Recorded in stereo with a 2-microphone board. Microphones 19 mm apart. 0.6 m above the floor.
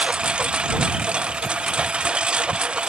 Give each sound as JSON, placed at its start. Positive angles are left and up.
{"t": 0.0, "sound": "a lawn mower", "side_deg": -85}